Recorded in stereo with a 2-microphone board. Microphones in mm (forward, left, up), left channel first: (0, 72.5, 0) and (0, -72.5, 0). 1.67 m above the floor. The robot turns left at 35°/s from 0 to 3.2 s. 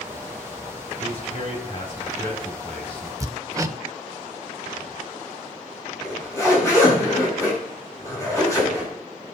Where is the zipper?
20° left (ahead or behind), 7 m.